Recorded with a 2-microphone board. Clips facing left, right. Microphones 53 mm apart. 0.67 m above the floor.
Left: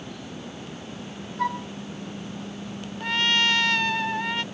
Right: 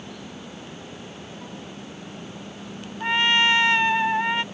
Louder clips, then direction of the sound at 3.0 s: Right 3 dB; 25° right (ahead or behind).